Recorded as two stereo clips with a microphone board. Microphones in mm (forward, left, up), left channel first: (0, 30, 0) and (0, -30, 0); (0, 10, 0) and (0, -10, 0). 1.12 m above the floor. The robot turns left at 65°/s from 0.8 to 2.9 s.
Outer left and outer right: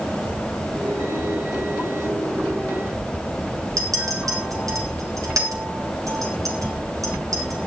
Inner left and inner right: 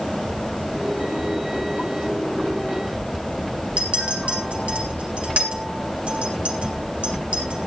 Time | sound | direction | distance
3.8 | a clink | 75° right (ahead or behind) | 3.5 m